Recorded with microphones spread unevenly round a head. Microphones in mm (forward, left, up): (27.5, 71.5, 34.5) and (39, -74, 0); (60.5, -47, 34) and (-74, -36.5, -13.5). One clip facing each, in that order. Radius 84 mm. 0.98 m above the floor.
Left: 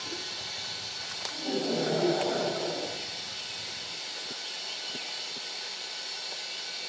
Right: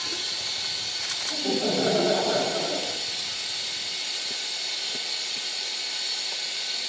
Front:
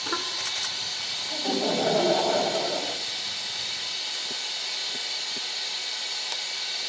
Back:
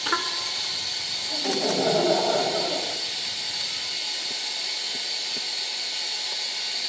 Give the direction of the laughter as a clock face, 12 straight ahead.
3 o'clock.